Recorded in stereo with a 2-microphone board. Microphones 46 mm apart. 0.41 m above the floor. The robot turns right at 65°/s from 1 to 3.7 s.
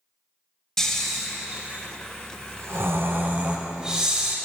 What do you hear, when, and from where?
0.8 s snoring: 165° left, 0.6 m; by 4.4 s 20° right, 0.6 m